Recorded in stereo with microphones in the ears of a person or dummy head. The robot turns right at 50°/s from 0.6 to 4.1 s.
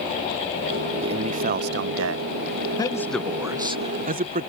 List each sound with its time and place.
1.0 s a man speaking: 155° right; by 2.3 s 95° right
2.8 s a man speaking: 155° left; by 4.5 s 140° right